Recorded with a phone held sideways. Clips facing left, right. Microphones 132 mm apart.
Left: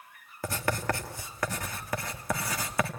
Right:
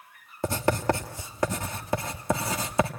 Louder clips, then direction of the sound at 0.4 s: Right 6 dB; 25° right (ahead or behind).